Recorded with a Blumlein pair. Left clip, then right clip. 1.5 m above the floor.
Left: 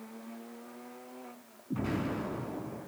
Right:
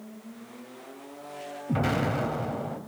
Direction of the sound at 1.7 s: 40° right.